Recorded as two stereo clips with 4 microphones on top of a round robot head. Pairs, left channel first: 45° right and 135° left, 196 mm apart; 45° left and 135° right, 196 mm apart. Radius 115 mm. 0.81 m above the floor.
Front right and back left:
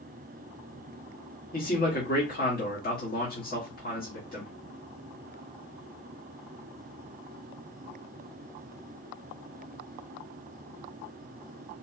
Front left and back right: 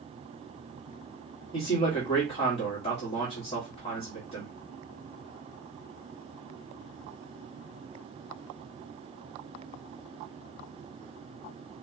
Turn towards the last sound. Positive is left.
turn(degrees=-10)